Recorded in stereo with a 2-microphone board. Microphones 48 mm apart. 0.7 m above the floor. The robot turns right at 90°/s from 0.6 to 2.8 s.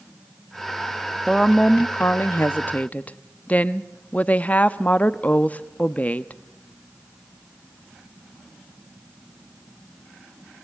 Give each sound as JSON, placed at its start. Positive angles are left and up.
{"t": 1.3, "sound": "a woman speaking", "azimuth_deg": -5, "distance_m": 0.7}